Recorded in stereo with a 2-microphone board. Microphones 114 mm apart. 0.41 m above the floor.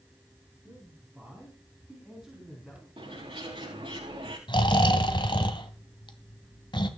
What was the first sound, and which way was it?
A man speaking, 15° right (ahead or behind).